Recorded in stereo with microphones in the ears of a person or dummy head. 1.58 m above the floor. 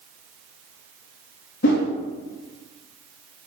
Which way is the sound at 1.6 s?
50° left (ahead or behind).